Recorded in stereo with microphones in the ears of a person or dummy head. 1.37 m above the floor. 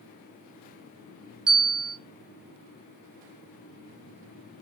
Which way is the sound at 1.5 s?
5° right (ahead or behind).